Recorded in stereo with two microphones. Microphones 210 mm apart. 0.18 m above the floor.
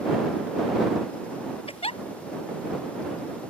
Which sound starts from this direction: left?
A giggle, at 1.7 s.